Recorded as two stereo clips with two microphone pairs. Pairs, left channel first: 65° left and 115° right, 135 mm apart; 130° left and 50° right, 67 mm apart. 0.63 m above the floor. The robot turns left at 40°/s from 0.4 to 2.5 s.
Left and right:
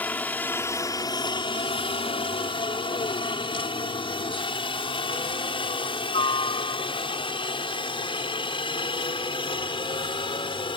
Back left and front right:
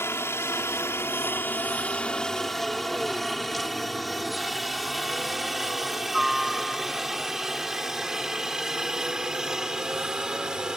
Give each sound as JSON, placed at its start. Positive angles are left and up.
{"t": 0.0, "sound": "a helicopter", "azimuth_deg": 135}